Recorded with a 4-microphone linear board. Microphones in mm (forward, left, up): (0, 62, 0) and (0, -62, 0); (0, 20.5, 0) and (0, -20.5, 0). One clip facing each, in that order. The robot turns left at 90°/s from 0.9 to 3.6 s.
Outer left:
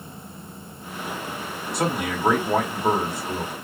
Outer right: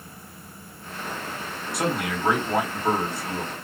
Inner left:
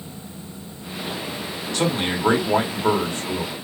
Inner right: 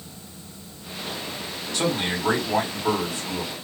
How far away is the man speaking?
About 1.3 m.